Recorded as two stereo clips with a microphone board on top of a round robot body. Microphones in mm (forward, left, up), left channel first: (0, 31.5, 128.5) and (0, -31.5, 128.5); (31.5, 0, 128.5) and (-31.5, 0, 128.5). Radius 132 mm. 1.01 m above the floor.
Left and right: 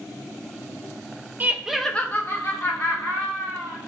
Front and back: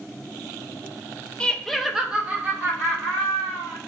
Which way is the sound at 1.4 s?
60° right.